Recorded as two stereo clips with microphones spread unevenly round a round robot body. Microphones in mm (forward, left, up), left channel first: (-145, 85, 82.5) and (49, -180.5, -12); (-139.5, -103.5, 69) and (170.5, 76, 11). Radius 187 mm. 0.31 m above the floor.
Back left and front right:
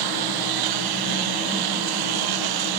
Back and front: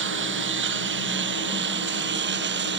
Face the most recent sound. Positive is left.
turn(degrees=-30)